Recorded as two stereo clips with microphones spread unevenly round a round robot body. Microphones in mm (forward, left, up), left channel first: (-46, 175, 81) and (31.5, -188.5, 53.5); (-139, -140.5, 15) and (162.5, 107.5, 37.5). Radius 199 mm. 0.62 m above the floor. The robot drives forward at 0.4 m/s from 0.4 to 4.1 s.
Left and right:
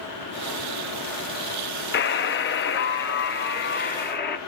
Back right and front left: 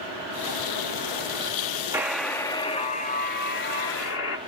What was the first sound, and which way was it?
A buzzer, 120° left.